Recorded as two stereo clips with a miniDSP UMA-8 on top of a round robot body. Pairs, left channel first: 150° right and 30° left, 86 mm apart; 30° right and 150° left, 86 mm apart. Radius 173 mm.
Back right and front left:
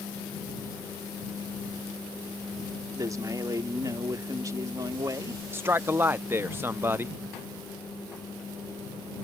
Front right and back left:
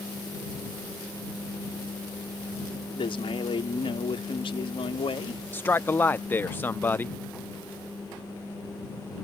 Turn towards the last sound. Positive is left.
turn(degrees=10)